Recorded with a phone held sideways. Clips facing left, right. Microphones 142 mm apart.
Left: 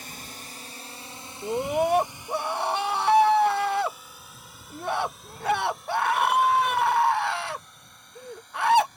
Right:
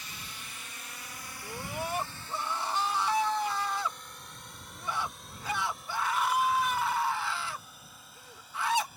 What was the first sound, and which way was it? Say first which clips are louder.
A drone: left 5 dB; 55° left (ahead or behind).